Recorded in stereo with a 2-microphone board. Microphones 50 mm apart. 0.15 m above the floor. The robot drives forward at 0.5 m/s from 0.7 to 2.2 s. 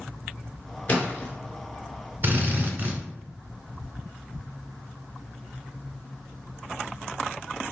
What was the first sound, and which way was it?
A splash, 25° left (ahead or behind).